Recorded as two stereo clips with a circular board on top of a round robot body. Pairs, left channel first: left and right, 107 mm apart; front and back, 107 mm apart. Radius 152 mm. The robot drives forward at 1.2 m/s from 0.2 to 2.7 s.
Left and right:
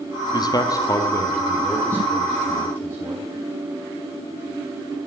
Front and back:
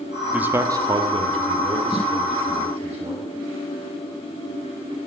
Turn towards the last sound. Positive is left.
turn(degrees=165)